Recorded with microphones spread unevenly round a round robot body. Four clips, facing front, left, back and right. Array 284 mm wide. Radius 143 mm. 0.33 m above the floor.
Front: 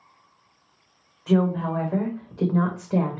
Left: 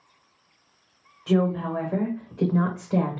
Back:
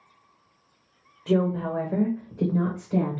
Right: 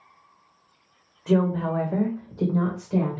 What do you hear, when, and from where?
1.3 s a woman speaking: 140° right, 1.2 m; by 3.2 s 55° left, 1.2 m